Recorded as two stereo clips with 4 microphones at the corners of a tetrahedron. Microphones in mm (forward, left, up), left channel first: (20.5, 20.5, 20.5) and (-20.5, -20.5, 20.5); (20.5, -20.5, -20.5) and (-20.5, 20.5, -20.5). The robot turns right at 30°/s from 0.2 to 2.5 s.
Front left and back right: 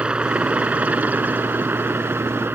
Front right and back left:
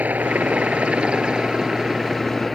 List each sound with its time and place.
0.0 s a helicopter: 170° left; by 2.5 s 140° right